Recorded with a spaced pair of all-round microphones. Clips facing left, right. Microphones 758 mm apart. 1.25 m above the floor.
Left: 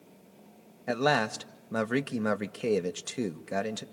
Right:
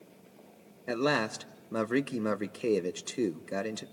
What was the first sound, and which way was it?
A man speaking, 30° left (ahead or behind).